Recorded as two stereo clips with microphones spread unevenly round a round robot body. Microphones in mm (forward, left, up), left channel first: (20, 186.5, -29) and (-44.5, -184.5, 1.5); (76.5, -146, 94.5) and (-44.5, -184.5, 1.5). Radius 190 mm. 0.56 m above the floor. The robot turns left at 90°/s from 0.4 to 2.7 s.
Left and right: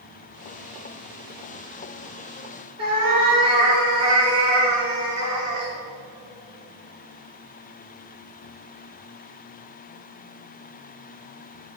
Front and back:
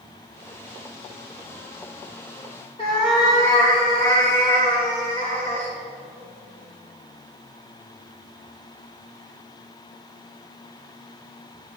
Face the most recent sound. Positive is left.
turn(degrees=-25)